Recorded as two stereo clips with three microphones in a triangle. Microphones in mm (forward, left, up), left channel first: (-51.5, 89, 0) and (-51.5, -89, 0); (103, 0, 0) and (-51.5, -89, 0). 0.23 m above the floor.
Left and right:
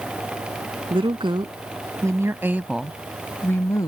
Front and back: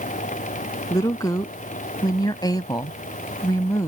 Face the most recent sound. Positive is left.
turn(degrees=70)